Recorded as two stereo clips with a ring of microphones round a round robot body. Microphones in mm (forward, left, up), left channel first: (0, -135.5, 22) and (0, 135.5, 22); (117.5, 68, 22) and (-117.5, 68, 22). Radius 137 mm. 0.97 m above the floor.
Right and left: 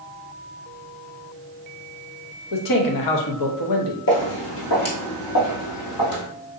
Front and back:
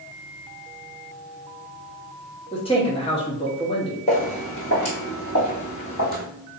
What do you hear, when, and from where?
2.5 s a man speaking: 70° right, 0.9 m
4.1 s footsteps: 55° right, 1.3 m; by 6.2 s 70° right, 2.5 m